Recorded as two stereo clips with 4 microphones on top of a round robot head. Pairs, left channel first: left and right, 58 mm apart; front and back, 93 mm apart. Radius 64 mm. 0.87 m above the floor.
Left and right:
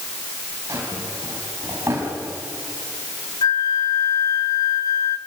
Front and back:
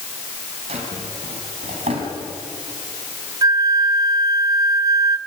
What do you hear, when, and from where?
0.7 s a drawer: 155° right, 4.5 m
3.4 s a flute: 130° left, 1.0 m